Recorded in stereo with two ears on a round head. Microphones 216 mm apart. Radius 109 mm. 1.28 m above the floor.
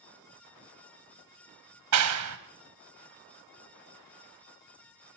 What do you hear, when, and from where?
1.9 s a clap: 75° right (ahead or behind), 1.1 m